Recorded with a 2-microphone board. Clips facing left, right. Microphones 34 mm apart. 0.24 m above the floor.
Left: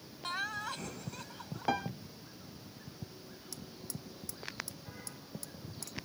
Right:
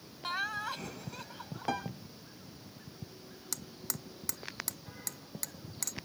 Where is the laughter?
10° right (ahead or behind).